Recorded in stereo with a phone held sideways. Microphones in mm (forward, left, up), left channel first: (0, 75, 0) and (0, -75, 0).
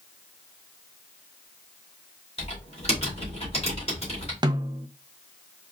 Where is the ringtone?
I don't hear a ringtone.